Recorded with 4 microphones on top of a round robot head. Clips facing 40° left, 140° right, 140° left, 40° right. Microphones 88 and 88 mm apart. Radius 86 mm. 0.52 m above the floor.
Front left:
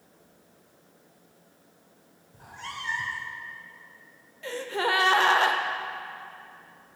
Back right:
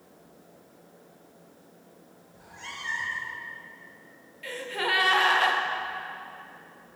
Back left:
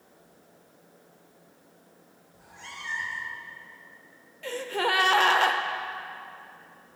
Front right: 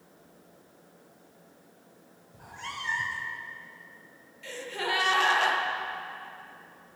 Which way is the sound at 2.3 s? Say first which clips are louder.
Front left 4 dB, front right 5 dB; 5° right.